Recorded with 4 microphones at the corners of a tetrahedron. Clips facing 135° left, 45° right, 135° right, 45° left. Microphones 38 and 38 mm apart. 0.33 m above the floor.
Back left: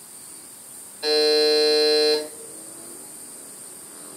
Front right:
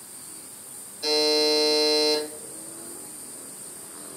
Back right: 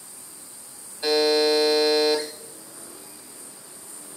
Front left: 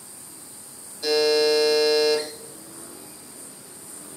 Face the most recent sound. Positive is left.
turn(degrees=-175)